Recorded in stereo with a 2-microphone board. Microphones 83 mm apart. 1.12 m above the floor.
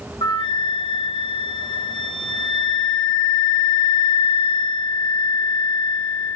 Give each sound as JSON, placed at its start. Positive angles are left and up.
{"t": 0.2, "sound": "a flute", "side_deg": 70, "distance_m": 1.1}